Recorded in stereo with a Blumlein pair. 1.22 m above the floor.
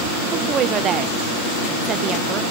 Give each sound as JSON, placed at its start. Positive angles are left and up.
{"t": 0.3, "sound": "a woman speaking", "azimuth_deg": -25, "distance_m": 0.6}